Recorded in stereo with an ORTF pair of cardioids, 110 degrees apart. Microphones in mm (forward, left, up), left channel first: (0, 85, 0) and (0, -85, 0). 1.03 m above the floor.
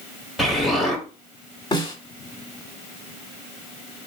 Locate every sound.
0.4 s an explosion: straight ahead, 1.3 m
1.7 s a snare drum: 25° left, 1.8 m